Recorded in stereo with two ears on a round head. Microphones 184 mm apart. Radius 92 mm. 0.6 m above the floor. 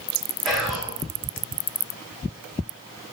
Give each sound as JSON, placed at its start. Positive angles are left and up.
{"t": 0.5, "sound": "whispering", "side_deg": 0, "distance_m": 1.2}